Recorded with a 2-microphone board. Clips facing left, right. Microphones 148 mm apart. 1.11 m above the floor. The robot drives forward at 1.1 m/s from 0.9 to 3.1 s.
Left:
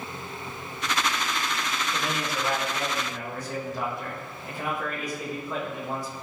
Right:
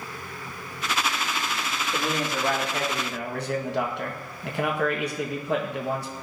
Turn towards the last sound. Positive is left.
turn(degrees=-65)  # may be behind; listen again after turning